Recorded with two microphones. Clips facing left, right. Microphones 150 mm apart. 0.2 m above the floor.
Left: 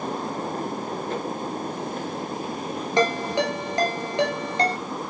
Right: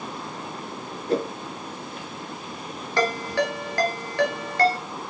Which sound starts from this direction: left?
A ringtone, at 3.0 s.